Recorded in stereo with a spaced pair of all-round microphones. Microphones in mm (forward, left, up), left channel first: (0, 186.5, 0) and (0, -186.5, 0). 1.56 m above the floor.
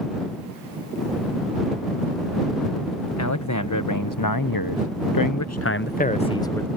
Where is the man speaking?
45° left (ahead or behind); by 6.7 s 5° left (ahead or behind).